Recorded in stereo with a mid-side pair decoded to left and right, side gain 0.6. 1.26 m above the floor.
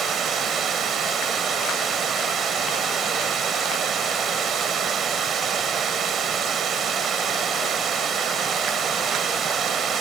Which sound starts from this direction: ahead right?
Running water, at 0.0 s.